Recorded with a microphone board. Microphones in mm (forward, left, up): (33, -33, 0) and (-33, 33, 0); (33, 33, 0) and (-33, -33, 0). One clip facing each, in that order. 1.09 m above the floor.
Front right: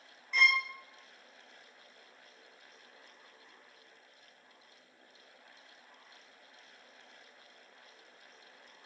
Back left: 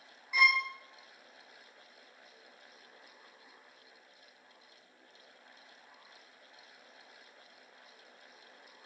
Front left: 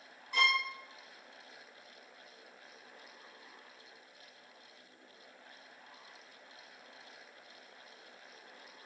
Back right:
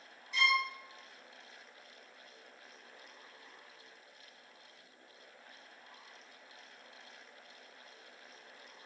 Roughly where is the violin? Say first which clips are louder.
Back left 1 dB, even; ahead left.